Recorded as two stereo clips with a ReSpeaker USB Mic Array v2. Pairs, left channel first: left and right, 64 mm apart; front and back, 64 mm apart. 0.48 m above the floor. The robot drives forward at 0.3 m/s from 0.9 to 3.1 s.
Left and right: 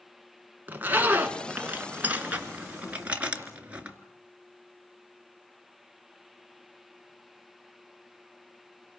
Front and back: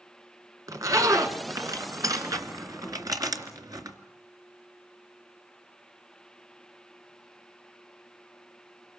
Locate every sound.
0.7 s a zipper: 150° right, 1.6 m; by 4.0 s 160° right, 2 m